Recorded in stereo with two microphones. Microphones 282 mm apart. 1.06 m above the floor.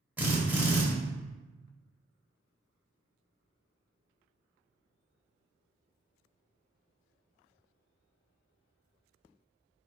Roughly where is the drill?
Centre.